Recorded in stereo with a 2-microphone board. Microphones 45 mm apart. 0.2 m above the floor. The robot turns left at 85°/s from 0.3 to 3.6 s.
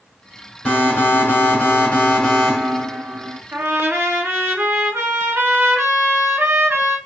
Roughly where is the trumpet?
Right.